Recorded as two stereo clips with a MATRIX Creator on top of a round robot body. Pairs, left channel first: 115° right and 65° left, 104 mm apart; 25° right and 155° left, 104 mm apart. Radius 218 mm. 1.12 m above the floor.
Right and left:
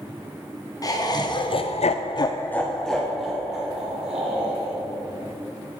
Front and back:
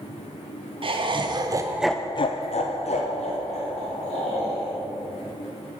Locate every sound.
0.8 s laughter: 165° right, 1.4 m; by 4.7 s 10° right, 3 m